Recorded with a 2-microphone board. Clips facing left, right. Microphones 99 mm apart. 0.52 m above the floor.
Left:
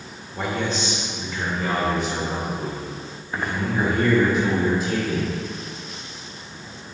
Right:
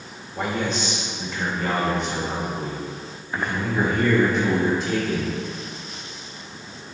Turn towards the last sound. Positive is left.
turn(degrees=5)  # may be behind; listen again after turning